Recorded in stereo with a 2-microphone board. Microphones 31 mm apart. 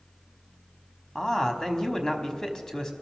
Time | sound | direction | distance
1.1 | a man speaking | 15° left (ahead or behind) | 1.1 m